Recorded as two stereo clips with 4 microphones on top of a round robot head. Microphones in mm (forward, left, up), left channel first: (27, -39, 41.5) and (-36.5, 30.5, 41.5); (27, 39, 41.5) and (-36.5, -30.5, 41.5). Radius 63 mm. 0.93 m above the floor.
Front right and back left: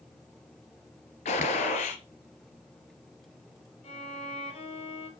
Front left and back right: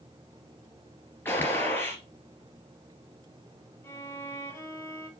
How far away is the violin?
About 5 m.